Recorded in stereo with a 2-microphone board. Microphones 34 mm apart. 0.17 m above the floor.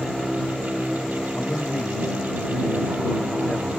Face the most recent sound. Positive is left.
turn(degrees=50)  # may be behind; listen again after turning